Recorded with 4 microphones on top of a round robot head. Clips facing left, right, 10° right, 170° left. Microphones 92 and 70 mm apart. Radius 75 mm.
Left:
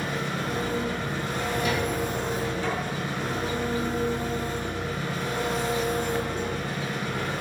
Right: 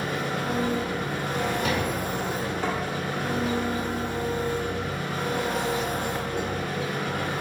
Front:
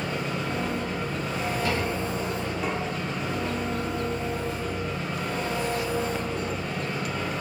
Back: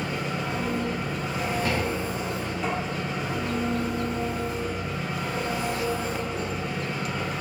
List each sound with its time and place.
0.0 s an engine running: 105° right, 0.8 m
1.3 s a drawer: 125° right, 1.3 m
2.6 s tapping: 80° right, 1.4 m